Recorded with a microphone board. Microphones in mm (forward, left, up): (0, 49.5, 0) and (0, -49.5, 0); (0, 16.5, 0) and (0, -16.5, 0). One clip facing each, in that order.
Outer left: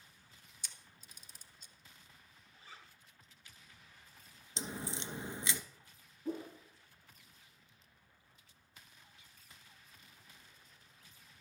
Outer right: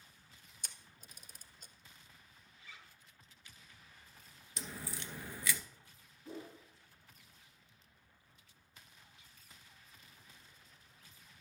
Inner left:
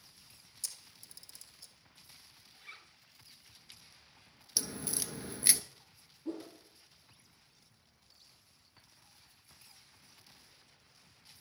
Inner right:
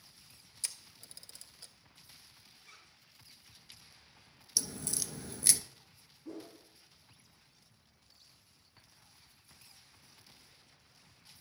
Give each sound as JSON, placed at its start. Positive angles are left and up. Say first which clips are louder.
{"t": 0.6, "sound": "a camera shutter", "louder": "outer right 1 dB, inner right 3 dB", "side_deg": -45, "distance_m": 0.8}
{"t": 2.5, "sound": "a zipper", "louder": "outer left 2 dB, inner left 8 dB", "side_deg": 35, "distance_m": 1.3}
{"t": 4.6, "sound": "a crack", "louder": "outer left 4 dB, even", "side_deg": 20, "distance_m": 0.5}
{"t": 6.2, "sound": "a whoosh", "louder": "outer left 7 dB, inner left 5 dB", "side_deg": 45, "distance_m": 4.0}